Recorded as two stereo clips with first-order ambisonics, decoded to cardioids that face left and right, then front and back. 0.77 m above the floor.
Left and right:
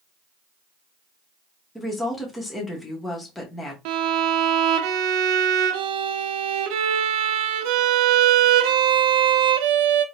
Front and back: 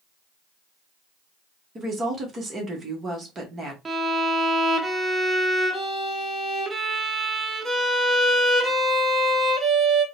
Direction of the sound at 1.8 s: 165° left.